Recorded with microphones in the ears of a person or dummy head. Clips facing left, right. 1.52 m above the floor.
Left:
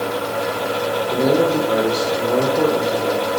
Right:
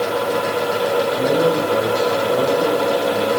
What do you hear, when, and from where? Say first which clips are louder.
1.1 s a man speaking: left 4 dB; 65° left (ahead or behind), 4.5 m